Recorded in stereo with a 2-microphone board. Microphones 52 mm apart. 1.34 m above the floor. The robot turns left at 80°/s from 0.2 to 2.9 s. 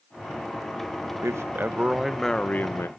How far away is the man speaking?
About 0.7 m.